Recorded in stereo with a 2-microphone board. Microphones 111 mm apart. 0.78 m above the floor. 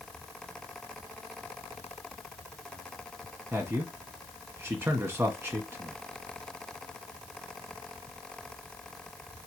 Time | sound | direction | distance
3.5 | a man speaking | 20° right (ahead or behind) | 1.2 m